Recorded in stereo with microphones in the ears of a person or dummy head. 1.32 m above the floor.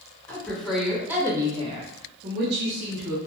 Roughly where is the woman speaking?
Centre.